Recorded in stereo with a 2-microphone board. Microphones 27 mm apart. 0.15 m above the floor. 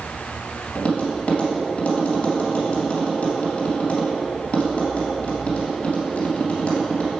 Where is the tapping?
50° left (ahead or behind), 2.5 m.